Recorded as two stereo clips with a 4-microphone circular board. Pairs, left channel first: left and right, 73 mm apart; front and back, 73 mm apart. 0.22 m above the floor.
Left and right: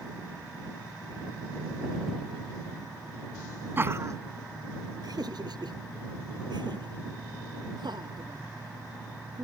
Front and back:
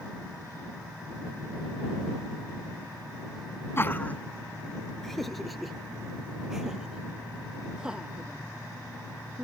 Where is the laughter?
40° right; by 9.4 s 105° right.